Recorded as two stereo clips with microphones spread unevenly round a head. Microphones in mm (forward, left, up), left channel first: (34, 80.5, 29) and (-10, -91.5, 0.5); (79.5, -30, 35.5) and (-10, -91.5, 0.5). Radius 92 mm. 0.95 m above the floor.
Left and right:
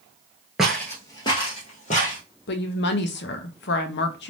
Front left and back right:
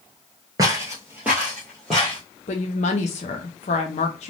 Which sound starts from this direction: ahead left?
A woman speaking, at 2.5 s.